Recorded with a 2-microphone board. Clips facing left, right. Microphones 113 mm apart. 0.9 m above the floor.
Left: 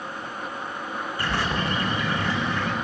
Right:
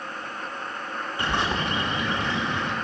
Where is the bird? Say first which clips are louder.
Right 1 dB; 25° right (ahead or behind), 2.5 m.